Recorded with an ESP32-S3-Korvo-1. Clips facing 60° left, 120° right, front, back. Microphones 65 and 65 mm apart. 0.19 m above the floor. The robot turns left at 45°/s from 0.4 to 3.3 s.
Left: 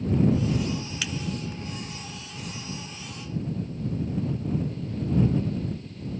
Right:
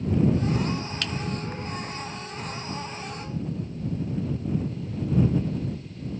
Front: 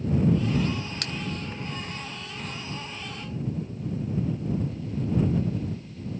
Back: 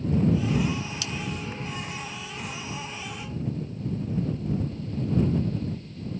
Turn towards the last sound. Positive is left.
turn(degrees=-125)